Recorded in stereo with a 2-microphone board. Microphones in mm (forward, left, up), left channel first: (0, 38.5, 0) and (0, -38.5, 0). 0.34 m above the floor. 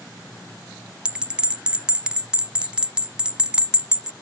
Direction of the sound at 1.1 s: 15° right (ahead or behind).